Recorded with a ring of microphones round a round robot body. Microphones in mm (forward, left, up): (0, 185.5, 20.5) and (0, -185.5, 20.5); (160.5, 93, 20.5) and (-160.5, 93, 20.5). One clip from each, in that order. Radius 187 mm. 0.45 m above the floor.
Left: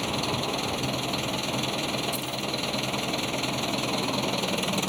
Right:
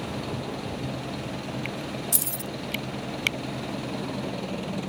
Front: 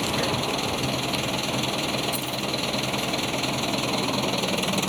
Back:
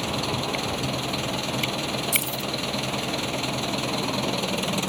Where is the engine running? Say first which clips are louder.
Left 5 dB, front 2 dB; 65° left.